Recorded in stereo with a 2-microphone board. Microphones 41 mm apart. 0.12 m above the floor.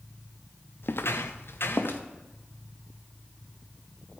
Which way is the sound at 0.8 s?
60° left (ahead or behind).